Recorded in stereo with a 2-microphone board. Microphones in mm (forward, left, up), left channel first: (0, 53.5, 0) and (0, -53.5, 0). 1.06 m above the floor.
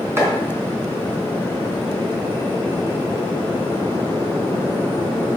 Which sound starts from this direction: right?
Chopping, at 0.2 s.